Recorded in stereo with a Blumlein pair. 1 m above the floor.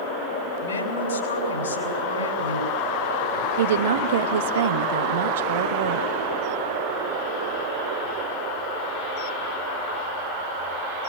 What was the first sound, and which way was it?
A woman speaking, 70° left.